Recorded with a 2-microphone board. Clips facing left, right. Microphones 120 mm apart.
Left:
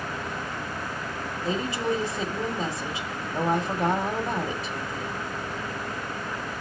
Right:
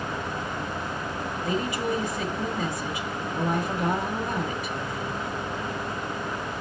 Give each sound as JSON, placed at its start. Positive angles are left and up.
{"t": 1.4, "sound": "a woman speaking", "side_deg": 30, "distance_m": 1.6}